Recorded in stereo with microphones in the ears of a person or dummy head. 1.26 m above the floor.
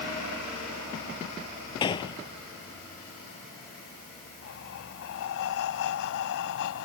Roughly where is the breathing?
Left.